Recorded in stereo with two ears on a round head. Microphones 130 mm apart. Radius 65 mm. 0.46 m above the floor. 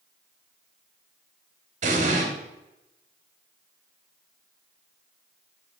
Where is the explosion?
55° right (ahead or behind), 2 m.